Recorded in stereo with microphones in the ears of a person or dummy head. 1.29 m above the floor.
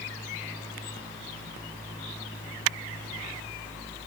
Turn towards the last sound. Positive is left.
No sound to turn to.